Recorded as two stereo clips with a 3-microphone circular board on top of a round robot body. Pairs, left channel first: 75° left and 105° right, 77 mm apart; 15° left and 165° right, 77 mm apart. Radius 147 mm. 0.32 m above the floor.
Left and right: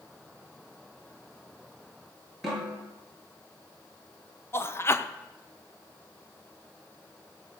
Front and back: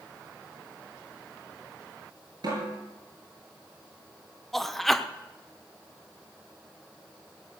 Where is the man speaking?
100° left, 1.1 m.